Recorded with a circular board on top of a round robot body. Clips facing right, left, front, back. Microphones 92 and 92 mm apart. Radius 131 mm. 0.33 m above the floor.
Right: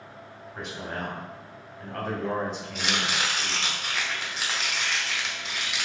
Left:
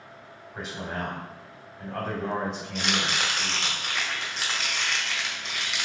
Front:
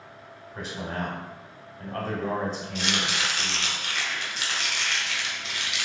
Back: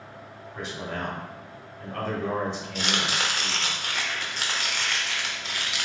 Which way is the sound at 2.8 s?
175° right.